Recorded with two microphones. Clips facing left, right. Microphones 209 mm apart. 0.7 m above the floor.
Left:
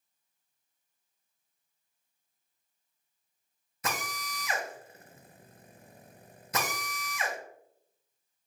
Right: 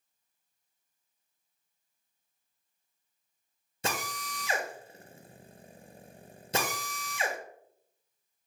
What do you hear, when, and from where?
3.8 s a drill: 30° right (ahead or behind), 0.5 m